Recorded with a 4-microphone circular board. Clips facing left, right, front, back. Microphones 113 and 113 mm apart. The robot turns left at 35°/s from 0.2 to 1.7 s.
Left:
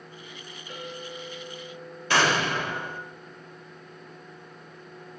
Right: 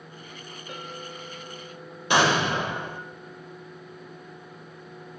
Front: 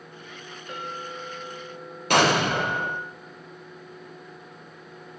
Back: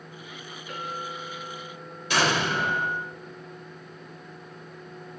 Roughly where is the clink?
Ahead right.